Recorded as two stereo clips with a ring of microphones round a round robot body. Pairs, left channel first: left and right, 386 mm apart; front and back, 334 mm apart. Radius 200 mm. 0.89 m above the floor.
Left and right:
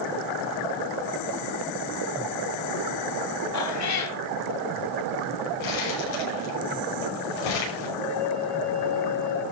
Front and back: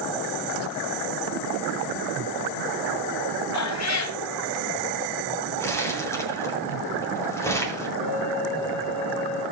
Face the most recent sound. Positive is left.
turn(degrees=-75)